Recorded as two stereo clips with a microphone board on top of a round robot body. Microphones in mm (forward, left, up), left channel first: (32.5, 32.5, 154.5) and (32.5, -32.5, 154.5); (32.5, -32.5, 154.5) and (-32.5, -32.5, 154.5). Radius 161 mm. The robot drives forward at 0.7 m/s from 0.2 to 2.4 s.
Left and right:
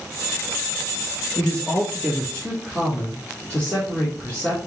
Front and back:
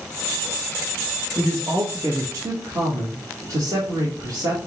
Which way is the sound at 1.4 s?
145° left.